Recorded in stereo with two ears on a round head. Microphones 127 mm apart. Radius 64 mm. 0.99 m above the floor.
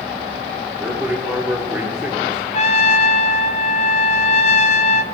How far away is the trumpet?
About 0.5 m.